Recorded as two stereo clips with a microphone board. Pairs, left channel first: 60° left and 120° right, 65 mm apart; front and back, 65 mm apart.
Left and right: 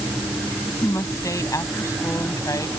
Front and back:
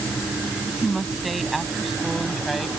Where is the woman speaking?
90° left.